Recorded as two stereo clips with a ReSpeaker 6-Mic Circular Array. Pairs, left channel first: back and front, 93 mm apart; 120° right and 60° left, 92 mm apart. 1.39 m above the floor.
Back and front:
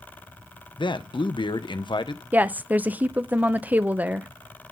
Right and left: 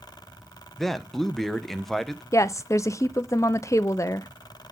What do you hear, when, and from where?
0.8 s a man speaking: 150° left, 0.7 m
2.3 s a woman speaking: 70° right, 0.6 m